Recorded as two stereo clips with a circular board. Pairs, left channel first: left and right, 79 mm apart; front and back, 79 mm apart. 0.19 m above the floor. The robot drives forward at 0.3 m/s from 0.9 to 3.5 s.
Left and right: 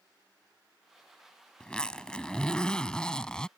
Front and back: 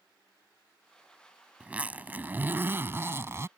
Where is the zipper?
145° left; by 3.5 s 165° left.